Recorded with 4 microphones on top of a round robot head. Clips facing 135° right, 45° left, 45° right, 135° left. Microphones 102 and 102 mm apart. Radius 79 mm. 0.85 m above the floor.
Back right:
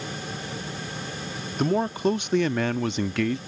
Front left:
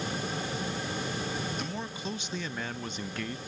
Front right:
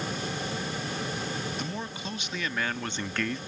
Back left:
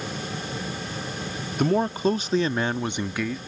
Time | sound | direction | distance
1.6 | a man speaking | 175° left | ?